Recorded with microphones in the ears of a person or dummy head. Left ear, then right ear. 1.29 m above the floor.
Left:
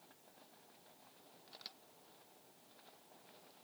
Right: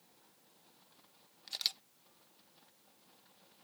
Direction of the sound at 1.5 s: 70° right (ahead or behind).